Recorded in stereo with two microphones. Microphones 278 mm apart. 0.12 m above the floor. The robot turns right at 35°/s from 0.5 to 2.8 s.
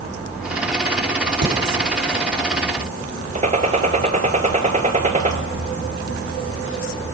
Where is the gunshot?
25° right (ahead or behind), 0.6 m.